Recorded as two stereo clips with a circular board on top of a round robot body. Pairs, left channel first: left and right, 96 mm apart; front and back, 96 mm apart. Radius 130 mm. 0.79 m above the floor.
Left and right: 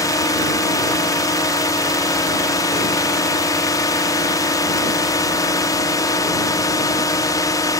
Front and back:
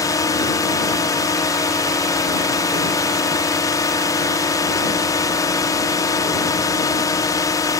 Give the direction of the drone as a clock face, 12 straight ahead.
10 o'clock.